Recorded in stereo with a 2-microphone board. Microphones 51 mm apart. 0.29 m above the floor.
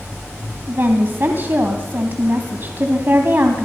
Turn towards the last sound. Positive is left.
turn(degrees=-45)  # may be behind; listen again after turning